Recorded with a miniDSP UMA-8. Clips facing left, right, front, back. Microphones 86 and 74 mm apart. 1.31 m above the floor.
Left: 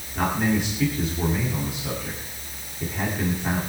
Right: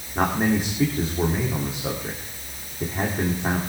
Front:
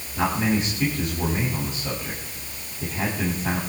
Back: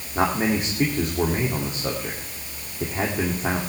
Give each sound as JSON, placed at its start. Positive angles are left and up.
{"t": 0.1, "sound": "a man speaking", "azimuth_deg": -140, "distance_m": 2.5}